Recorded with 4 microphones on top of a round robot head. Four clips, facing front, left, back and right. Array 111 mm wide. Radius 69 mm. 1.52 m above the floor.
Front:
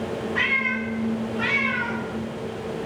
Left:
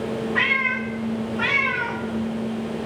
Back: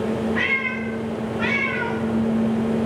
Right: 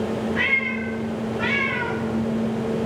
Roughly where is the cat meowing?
Ahead left.